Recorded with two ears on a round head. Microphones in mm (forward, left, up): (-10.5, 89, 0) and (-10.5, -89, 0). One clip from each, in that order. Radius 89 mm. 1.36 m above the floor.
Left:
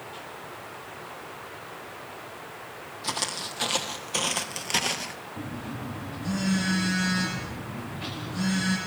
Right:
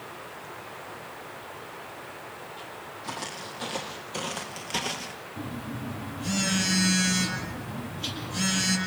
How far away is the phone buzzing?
About 8 m.